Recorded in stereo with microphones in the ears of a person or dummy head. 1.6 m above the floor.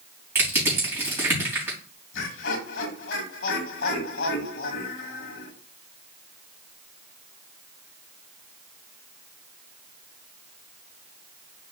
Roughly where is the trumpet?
No trumpet in this recording.